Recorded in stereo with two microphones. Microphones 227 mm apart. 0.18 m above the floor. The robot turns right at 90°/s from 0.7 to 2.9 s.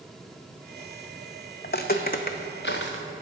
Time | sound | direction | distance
1.6 | footsteps | 45° left (ahead or behind) | 0.6 m